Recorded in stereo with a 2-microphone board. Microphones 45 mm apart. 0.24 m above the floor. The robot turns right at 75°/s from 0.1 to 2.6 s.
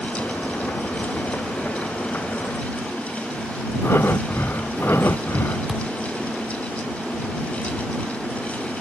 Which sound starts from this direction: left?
Breathing, at 3.8 s.